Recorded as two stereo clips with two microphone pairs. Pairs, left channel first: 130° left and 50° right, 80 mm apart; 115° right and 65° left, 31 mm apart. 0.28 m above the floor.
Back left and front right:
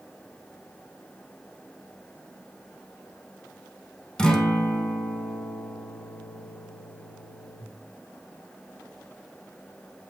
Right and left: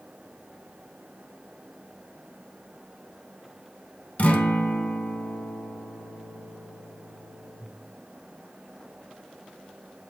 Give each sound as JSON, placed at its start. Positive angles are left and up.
{"t": 4.2, "sound": "a guitar", "azimuth_deg": -150, "distance_m": 0.6}